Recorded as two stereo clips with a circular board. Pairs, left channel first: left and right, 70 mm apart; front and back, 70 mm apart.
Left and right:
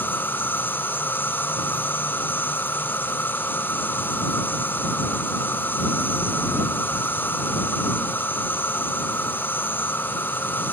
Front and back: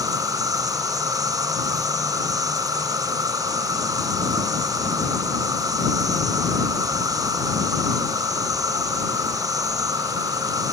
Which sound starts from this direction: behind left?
An insect, at 0.0 s.